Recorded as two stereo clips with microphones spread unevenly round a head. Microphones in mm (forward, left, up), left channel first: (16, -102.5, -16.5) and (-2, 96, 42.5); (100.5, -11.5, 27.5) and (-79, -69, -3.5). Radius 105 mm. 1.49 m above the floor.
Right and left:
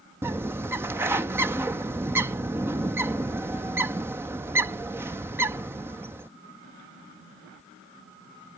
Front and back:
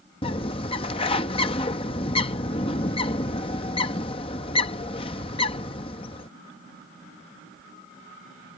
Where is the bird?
45° left.